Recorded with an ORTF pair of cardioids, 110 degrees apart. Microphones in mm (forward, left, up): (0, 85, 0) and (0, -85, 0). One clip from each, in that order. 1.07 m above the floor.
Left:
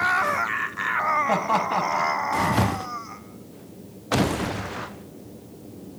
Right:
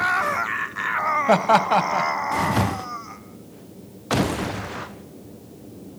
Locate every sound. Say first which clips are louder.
1.3 s laughter: right 5 dB; 45° right, 0.9 m